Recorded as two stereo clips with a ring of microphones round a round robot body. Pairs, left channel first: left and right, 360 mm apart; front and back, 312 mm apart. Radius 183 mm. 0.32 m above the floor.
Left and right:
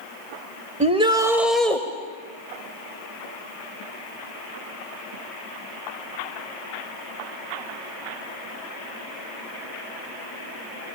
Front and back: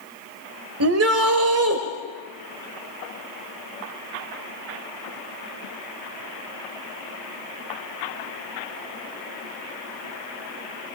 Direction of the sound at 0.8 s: 155° right.